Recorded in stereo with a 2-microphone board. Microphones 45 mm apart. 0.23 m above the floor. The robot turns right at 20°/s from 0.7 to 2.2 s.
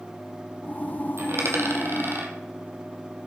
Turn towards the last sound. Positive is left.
turn(degrees=-55)  # may be behind; listen again after turning